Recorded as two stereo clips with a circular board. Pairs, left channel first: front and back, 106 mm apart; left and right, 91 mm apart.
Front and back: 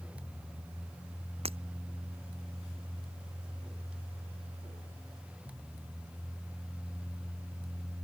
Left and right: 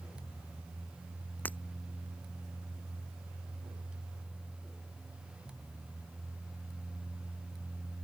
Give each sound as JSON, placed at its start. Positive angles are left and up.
{"t": 1.4, "sound": "breaking glass", "azimuth_deg": 160}